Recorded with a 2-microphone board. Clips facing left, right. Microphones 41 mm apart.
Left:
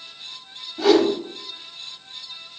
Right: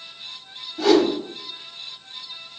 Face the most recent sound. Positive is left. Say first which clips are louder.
# even
turn(degrees=5)  # may be behind; listen again after turning